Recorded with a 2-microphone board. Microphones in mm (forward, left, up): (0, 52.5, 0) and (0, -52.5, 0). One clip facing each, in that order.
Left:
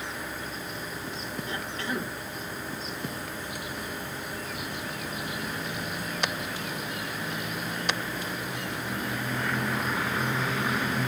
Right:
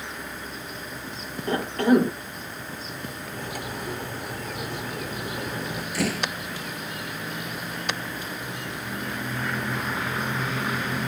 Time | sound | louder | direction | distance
1.5 | a cough | right 16 dB | 55° right (ahead or behind) | ?
3.3 | cutlery clinking | right 3 dB | 75° right (ahead or behind) | ?
5.9 | a door slam | right 8 dB | 80° right | ?